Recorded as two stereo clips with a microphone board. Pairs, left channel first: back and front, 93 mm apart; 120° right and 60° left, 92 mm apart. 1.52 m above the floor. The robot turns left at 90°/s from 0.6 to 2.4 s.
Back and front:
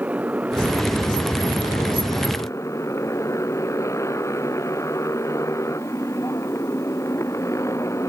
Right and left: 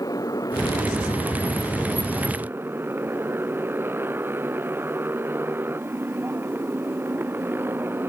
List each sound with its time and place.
0.0 s a motorcycle: 75° right; by 8.1 s 125° left